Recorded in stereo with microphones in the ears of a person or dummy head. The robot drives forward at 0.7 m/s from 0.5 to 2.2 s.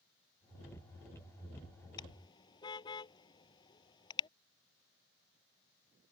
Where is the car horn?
25° left (ahead or behind).